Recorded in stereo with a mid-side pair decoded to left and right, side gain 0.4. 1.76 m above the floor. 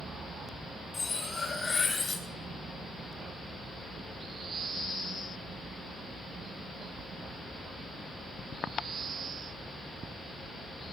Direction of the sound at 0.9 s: 45° left.